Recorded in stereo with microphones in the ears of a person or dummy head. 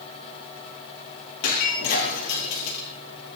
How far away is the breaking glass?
About 8.5 m.